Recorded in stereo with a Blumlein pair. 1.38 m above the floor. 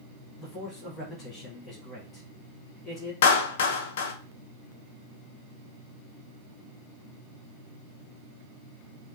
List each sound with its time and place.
0.4 s a man speaking: 25° left, 1.7 m
3.2 s a clap: 55° left, 0.6 m